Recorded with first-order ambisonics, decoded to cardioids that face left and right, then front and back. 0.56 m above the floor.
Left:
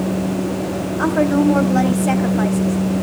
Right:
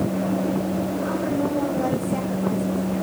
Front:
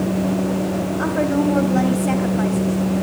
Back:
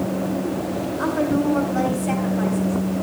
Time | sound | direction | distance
1.0 | a woman speaking | 75° left | 3.5 m